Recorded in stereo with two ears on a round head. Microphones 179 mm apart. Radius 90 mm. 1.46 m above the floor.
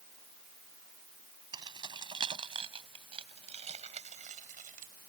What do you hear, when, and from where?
1.5 s keys jangling: 20° right (ahead or behind); by 5.1 s 45° right (ahead or behind)